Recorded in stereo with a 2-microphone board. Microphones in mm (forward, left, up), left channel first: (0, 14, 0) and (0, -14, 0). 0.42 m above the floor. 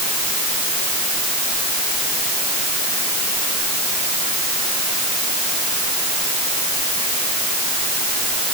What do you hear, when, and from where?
Only background noise.